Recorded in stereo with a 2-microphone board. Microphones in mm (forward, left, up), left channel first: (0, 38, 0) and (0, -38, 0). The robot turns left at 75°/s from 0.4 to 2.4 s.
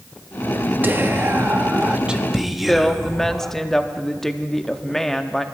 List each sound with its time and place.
0.8 s whispering: 25° right (ahead or behind), 0.8 m; by 3.5 s 5° right (ahead or behind), 0.8 m
2.7 s a woman speaking: 5° left (ahead or behind), 0.8 m